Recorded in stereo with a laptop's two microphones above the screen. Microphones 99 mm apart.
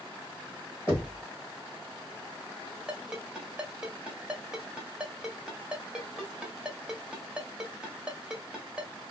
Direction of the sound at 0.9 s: 25° left (ahead or behind).